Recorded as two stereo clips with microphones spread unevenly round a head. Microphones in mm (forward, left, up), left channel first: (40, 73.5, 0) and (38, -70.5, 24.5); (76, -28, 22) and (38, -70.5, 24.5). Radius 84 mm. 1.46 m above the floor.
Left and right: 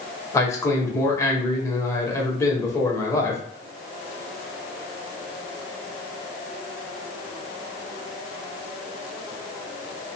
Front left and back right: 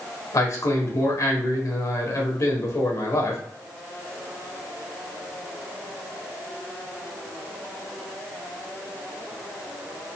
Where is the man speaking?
20° left, 1.7 m.